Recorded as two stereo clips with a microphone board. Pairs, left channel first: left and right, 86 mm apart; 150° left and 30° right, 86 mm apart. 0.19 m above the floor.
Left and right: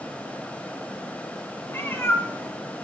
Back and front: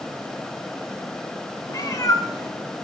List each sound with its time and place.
1.7 s a cat meowing: 140° left, 1.0 m